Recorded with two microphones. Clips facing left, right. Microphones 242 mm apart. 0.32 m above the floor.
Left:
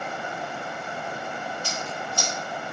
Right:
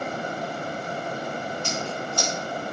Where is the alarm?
No alarm in this recording.